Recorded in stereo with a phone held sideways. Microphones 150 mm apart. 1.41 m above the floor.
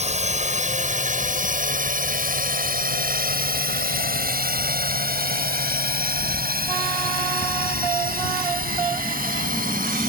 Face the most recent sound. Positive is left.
turn(degrees=-70)  # may be behind; listen again after turning